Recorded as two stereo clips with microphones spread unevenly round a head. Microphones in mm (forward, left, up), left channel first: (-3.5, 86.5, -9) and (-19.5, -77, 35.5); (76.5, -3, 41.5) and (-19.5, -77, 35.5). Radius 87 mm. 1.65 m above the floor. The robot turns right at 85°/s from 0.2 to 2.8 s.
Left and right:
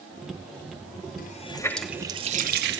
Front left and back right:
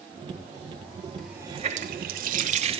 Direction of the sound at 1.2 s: 125° left.